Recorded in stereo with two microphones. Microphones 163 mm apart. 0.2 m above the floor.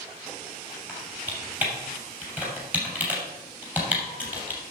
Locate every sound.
0.9 s typing on a keyboard: 10° right (ahead or behind), 3 m